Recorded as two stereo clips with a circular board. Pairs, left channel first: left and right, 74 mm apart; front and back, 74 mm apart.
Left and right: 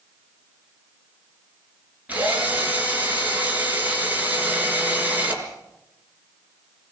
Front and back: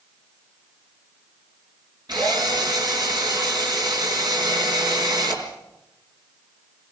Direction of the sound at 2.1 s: 160° right.